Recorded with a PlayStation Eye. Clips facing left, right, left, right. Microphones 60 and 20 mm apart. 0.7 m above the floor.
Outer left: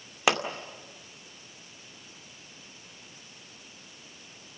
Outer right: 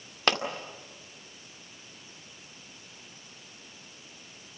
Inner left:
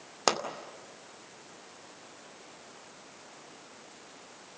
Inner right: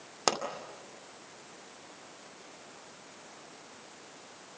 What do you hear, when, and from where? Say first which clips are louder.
0.3 s a pop: outer left 2 dB, inner left 2 dB; 10° left (ahead or behind), 2 m